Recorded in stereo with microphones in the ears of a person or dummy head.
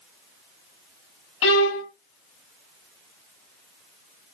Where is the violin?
65° left (ahead or behind), 0.7 m.